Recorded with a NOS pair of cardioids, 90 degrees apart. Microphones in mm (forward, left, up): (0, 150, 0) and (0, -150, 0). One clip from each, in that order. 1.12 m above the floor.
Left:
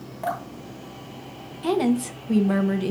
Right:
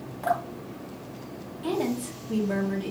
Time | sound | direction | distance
0.2 | dripping | 25° left | 1.5 m
1.6 | a woman speaking | 45° left | 0.8 m